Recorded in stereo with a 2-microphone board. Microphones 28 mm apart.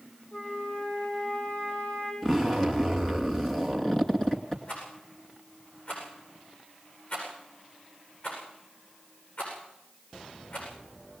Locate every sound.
0.3 s a flute: 50° left (ahead or behind), 8 m
2.2 s a zipper: 20° left (ahead or behind), 2.5 m
4.7 s a rattle: 70° left (ahead or behind), 9 m